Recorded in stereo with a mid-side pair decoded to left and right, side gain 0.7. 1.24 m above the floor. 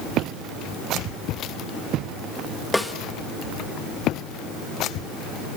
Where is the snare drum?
5° left, 2 m.